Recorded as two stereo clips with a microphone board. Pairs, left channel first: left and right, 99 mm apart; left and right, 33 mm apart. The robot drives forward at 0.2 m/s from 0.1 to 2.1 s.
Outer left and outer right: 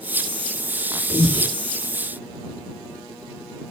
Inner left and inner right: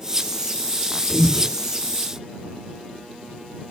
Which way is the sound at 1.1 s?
5° left (ahead or behind).